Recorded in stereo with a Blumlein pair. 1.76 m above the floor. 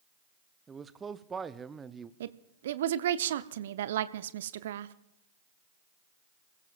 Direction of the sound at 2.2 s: 60° right.